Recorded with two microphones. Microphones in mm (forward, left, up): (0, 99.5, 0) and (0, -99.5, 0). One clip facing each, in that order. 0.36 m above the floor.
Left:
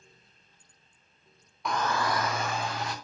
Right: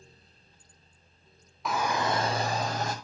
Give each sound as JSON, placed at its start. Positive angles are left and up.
{"t": 1.6, "sound": "a shout", "side_deg": 0, "distance_m": 1.1}